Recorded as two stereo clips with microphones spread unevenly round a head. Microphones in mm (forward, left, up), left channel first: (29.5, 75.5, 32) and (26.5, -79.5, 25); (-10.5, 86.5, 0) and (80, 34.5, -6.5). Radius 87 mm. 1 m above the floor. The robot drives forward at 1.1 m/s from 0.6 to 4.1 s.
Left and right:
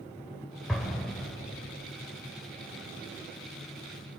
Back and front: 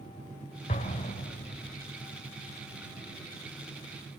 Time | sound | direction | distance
0.7 | an explosion | straight behind | 3 m